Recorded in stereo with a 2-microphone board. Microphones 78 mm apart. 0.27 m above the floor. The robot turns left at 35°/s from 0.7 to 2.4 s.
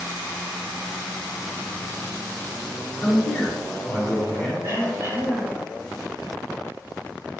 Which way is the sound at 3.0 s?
20° left (ahead or behind).